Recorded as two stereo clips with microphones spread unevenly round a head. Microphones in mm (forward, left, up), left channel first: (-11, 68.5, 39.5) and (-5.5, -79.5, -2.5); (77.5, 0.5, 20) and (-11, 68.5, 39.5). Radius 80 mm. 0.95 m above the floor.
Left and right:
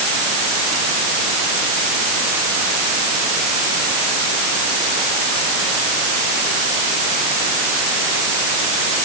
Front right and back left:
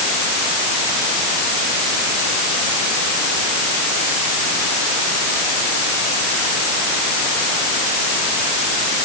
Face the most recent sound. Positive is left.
No sound to turn to.